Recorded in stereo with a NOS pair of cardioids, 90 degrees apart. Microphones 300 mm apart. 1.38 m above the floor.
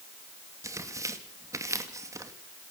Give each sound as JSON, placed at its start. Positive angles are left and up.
{"t": 0.6, "sound": "tearing paper", "azimuth_deg": -10, "distance_m": 2.5}